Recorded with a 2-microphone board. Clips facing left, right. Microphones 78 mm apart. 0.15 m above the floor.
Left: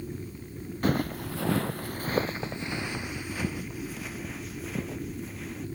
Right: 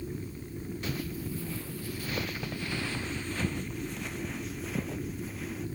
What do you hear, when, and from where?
0.8 s footsteps: 50° left (ahead or behind); by 5.7 s centre (ahead or behind)